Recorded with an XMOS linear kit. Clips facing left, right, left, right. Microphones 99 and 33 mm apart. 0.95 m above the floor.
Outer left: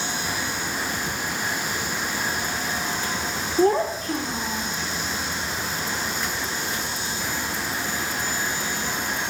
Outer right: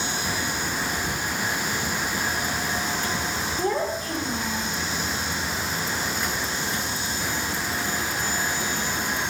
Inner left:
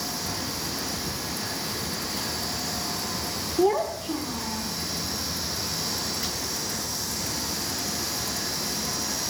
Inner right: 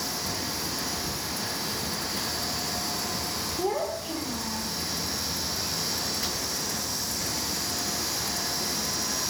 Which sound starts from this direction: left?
A child speaking, at 3.6 s.